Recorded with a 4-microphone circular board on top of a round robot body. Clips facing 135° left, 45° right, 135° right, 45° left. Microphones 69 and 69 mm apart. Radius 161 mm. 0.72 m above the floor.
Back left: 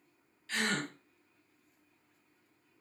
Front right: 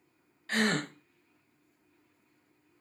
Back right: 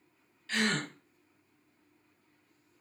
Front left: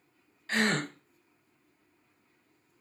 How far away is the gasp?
About 0.7 m.